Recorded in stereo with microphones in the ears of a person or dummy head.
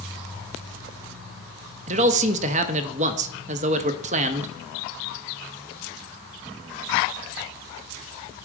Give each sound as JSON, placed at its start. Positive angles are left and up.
{"t": 1.9, "sound": "a man speaking", "side_deg": -35, "distance_m": 0.7}